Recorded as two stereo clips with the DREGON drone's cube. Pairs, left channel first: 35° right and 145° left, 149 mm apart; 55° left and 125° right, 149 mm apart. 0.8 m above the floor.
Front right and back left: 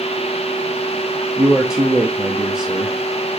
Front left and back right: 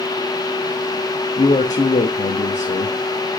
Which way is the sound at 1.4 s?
60° left.